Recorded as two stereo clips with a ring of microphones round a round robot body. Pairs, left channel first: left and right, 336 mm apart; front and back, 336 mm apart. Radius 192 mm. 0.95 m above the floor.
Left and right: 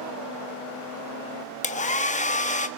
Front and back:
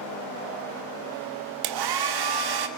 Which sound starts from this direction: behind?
A hair dryer, at 1.6 s.